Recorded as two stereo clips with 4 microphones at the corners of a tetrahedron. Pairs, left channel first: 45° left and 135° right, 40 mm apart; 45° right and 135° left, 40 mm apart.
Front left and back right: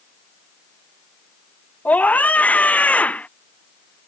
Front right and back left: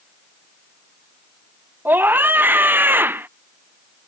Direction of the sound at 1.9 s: 95° left.